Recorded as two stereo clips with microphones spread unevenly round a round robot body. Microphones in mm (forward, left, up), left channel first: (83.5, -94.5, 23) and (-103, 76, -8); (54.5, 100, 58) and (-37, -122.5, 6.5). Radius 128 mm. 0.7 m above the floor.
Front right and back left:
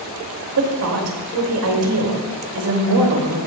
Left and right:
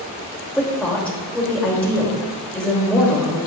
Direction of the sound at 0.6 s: 160° left.